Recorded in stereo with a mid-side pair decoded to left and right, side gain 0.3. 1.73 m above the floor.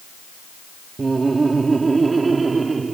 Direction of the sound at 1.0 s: 40° right.